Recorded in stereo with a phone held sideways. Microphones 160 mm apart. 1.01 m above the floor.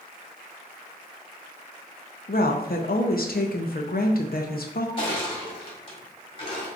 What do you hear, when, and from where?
2.3 s a woman speaking: 70° left (ahead or behind), 0.6 m
5.0 s crushing: 35° left (ahead or behind), 1.4 m